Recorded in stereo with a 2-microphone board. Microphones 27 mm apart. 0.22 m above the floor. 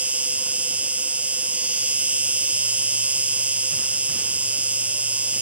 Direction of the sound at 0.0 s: 60° right (ahead or behind).